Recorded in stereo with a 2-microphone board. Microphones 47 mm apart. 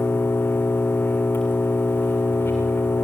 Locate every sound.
0.0 s an engine running: 50° left (ahead or behind), 8.5 m